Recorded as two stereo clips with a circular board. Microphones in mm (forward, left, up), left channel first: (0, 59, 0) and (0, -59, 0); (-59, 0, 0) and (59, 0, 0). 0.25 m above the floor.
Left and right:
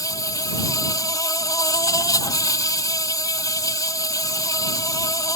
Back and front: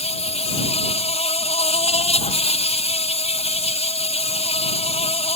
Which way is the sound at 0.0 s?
150° left.